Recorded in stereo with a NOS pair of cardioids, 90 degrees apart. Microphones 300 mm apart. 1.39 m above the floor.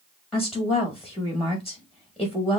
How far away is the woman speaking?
About 1.7 m.